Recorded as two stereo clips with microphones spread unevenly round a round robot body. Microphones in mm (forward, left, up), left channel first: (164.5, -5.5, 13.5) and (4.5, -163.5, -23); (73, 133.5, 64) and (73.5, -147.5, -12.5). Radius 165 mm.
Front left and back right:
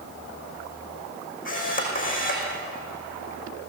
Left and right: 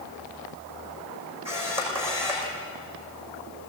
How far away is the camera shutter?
About 6 m.